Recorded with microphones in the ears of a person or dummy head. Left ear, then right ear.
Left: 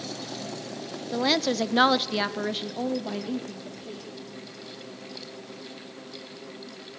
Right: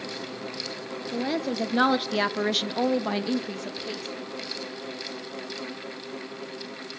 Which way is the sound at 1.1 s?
40° left (ahead or behind).